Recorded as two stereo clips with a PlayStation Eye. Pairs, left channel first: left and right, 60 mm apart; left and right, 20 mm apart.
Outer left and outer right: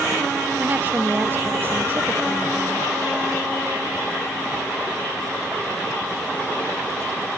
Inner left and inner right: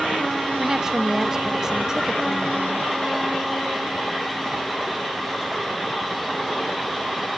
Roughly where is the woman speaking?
Right.